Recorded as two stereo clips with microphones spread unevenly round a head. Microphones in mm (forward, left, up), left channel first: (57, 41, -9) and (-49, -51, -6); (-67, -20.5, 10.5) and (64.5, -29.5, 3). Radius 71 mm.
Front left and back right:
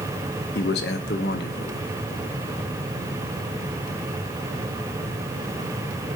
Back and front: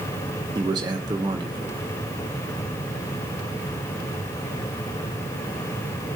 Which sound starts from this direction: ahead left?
A man speaking, at 0.6 s.